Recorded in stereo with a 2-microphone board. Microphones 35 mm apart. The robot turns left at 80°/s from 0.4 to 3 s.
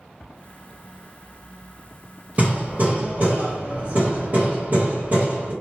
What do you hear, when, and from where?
2.4 s hammering: 50° right, 1.5 m; by 5.5 s 100° right, 1.5 m